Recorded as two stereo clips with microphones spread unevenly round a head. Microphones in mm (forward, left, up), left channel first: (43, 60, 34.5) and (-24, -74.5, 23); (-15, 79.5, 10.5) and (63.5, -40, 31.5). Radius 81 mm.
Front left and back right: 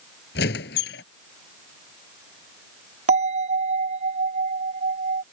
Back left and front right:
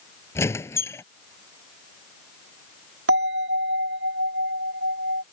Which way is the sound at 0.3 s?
50° left.